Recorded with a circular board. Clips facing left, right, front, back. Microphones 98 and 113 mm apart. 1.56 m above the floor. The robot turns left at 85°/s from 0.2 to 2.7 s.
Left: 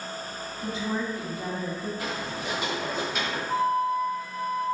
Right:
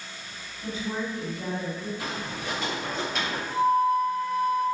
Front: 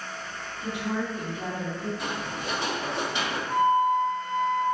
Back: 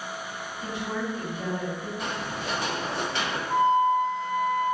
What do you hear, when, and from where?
0.6 s a woman speaking: 130° left, 1.6 m; by 1.9 s 20° left, 1.6 m
2.0 s footsteps: 85° left, 2.0 m; by 3.4 s 5° left, 1.5 m
3.5 s a flute: 95° left, 1.6 m